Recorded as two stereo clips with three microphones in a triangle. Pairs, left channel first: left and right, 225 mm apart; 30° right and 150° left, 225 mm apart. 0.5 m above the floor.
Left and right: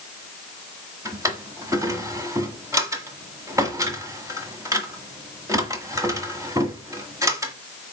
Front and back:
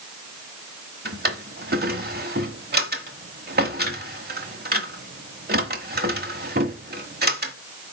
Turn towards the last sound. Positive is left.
turn(degrees=-165)